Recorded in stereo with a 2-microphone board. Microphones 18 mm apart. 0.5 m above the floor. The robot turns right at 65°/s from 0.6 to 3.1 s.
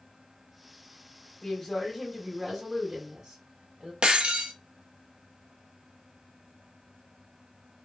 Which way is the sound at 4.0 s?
70° right (ahead or behind).